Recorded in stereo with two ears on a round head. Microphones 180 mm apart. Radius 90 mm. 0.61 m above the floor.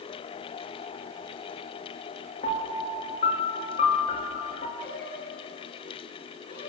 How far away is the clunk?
I don't hear a clunk.